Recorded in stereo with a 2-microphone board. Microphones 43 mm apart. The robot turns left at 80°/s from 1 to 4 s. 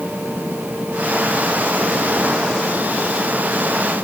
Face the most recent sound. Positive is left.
No sound to turn to.